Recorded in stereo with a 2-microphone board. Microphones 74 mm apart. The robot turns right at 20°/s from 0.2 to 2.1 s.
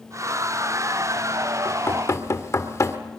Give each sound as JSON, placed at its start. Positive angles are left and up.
{"t": 1.6, "sound": "knocking", "side_deg": 35, "distance_m": 1.6}